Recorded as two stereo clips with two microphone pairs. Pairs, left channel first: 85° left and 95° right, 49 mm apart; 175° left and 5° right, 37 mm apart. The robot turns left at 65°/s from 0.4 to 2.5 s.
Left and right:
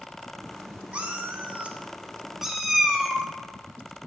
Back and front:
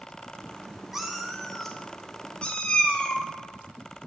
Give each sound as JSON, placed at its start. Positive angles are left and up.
{"t": 0.9, "sound": "a cat meowing", "azimuth_deg": -70, "distance_m": 0.8}